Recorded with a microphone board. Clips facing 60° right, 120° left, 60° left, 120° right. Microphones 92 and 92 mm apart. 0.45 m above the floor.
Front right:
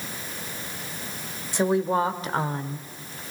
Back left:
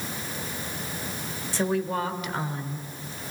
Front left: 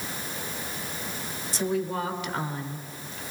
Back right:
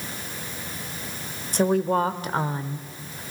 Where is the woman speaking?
130° right, 2 m; by 3.2 s 40° right, 1.9 m.